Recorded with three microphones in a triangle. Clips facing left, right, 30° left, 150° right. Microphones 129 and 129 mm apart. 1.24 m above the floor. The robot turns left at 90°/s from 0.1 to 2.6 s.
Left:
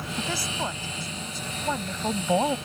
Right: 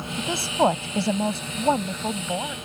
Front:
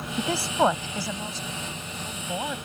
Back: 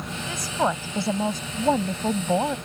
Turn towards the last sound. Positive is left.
turn(degrees=135)